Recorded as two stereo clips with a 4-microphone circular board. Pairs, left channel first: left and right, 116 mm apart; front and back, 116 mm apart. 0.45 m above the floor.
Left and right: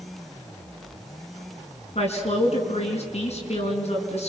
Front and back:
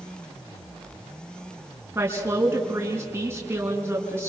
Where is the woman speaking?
110° left, 6 m.